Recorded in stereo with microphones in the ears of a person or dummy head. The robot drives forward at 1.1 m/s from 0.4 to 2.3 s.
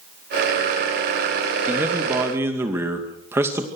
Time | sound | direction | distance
1.7 | a man speaking | 15° right (ahead or behind) | 3 m